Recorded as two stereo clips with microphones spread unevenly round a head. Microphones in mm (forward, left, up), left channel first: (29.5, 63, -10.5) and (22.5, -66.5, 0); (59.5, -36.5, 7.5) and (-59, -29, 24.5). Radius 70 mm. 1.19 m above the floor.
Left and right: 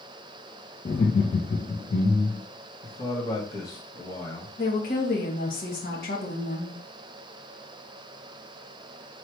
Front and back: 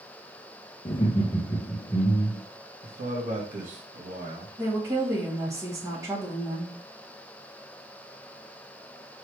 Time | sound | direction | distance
0.8 | laughter | 45° left | 0.6 m
2.8 | a man speaking | 150° left | 1.6 m
4.6 | a woman speaking | 110° left | 1.8 m